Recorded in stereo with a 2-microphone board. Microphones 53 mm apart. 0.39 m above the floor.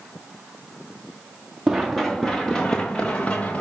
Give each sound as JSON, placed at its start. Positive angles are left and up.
{"t": 1.7, "sound": "running footsteps", "side_deg": 0, "distance_m": 2.0}